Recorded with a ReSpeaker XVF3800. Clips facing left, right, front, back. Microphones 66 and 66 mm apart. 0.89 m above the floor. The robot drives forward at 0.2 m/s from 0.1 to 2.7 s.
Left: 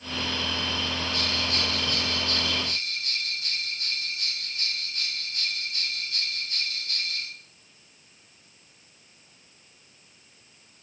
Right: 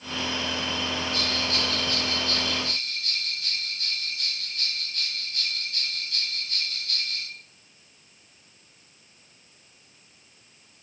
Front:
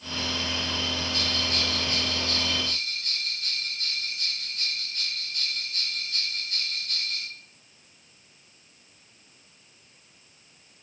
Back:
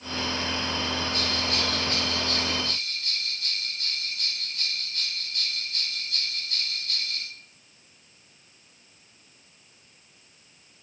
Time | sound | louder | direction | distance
1.1 | a bell | right 1 dB, back 1 dB | 155° left | 2.5 m